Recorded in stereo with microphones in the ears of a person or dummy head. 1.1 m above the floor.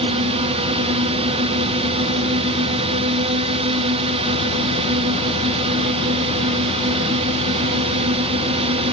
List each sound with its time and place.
0.0 s a drone: 25° right (ahead or behind)